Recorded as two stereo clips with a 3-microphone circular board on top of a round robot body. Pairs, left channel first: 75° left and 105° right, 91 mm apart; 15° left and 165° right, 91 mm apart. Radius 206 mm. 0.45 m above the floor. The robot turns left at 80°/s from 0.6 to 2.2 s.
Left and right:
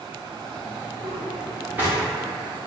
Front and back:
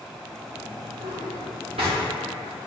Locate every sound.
1.0 s a drawer: 115° right, 1.2 m; by 2.0 s 165° left, 1.2 m